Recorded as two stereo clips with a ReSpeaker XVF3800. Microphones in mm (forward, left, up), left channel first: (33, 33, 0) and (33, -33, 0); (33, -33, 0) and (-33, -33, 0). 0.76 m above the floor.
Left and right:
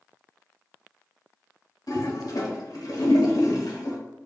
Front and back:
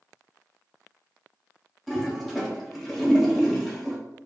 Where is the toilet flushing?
90° left, 0.8 m.